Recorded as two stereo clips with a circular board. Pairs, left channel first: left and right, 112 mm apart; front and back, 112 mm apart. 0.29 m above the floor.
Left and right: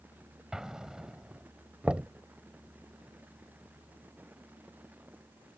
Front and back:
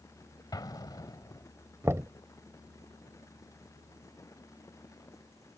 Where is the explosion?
10° right.